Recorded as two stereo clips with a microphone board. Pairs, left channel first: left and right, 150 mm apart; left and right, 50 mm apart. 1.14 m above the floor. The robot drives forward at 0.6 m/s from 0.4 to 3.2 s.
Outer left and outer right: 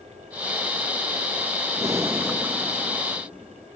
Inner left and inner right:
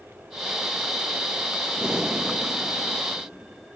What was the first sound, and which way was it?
Breathing, 20° right (ahead or behind).